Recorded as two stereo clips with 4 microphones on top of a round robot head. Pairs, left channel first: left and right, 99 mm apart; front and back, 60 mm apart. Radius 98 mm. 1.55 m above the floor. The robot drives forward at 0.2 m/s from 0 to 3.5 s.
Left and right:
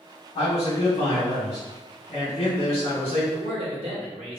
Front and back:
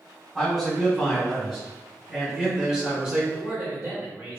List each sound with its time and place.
0.3 s a man speaking: 95° left, 1.4 m; by 3.2 s 115° left, 1.5 m
3.3 s a man speaking: 110° right, 1.0 m